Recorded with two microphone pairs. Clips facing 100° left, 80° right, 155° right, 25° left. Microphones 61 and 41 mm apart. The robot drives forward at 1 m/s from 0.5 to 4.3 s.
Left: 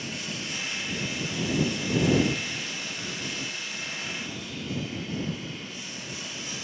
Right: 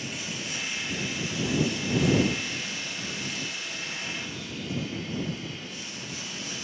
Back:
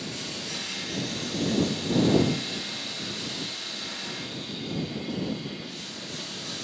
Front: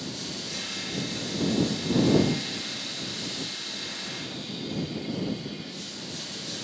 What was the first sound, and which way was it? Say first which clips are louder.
Running water: even, back 1 dB; 165° right.